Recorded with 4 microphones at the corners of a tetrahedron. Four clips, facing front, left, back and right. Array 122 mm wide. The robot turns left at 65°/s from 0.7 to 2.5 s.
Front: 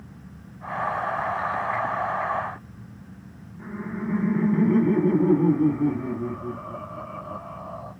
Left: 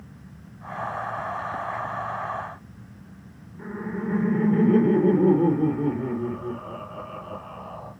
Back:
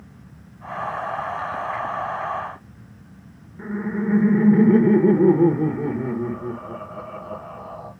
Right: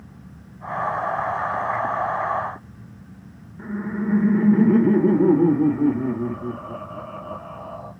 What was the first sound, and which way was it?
Laughter, 175° left.